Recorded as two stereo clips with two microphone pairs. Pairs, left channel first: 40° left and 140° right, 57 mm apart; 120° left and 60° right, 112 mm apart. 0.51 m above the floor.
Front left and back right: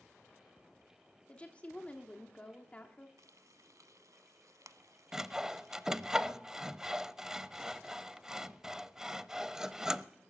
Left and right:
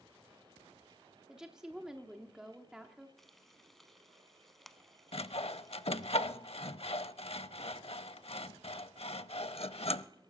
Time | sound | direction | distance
1.3 | a woman speaking | 15° left | 1.1 m
3.2 | frying | 150° right | 0.9 m
5.1 | sawing | 145° left | 0.5 m